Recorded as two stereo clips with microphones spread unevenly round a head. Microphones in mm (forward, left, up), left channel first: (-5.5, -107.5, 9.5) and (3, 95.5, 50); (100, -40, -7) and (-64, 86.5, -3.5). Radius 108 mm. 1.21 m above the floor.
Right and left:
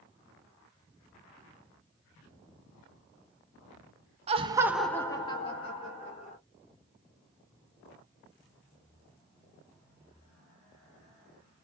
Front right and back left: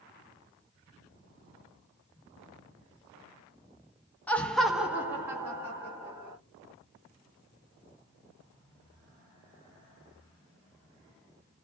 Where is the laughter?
35° left, 0.6 m; by 6.4 s 140° right, 1.5 m.